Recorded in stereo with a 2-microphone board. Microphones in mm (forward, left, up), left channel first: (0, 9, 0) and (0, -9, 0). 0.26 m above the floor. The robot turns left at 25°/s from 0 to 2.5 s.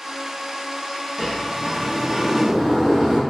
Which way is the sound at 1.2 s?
15° right.